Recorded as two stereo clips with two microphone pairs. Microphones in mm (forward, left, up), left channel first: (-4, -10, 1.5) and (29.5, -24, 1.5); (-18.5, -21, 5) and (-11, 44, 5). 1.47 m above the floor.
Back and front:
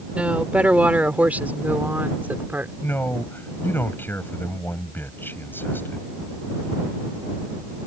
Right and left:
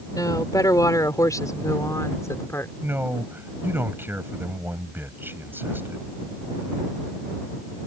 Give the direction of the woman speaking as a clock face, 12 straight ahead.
3 o'clock.